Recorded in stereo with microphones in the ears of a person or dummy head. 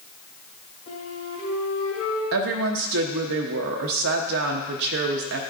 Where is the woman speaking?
60° right (ahead or behind), 0.8 m.